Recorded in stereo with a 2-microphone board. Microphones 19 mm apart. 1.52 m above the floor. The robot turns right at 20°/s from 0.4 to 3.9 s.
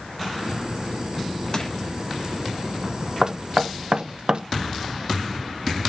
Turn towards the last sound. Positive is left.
turn(degrees=-45)  # may be behind; listen again after turning